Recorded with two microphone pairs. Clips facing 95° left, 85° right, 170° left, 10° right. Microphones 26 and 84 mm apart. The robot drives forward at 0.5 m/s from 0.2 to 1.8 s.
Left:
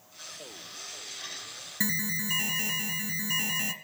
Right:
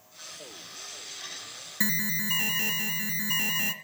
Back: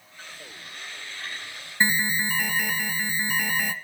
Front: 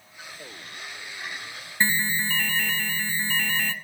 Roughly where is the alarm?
Behind right.